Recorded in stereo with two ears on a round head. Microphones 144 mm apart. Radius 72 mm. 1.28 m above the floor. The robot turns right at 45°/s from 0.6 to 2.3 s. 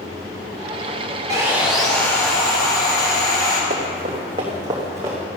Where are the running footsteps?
45° right (ahead or behind), 3 m; by 5.2 s 15° right (ahead or behind), 4 m.